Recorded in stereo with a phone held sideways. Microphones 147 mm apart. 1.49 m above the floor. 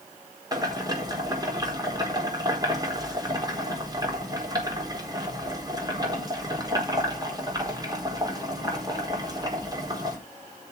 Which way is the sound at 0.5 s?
25° right (ahead or behind).